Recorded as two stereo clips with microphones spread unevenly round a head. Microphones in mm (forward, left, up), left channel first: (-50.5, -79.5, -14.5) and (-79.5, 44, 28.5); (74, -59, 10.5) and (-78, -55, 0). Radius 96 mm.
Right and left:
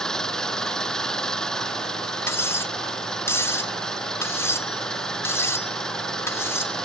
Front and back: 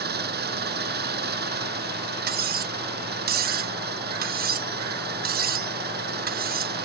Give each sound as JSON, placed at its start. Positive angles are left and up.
{"t": 0.0, "sound": "an engine running", "azimuth_deg": -165}
{"t": 2.3, "sound": "cutlery clinking", "azimuth_deg": -155}